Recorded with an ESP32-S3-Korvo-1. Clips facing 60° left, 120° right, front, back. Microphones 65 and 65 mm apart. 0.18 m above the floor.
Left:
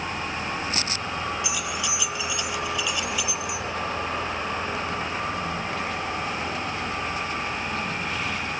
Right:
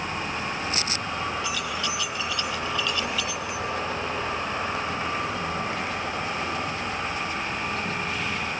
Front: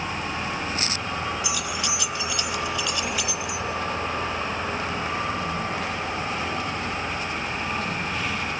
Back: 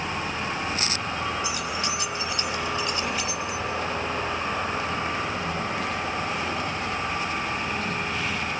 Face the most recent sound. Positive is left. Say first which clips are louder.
# even, even
turn(degrees=135)